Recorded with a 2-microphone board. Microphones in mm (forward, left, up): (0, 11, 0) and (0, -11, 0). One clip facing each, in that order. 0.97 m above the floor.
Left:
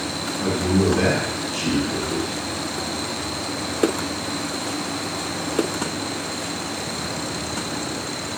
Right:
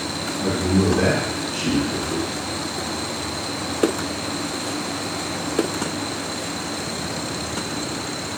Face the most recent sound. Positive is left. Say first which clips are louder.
# even
turn(degrees=15)  # may be behind; listen again after turning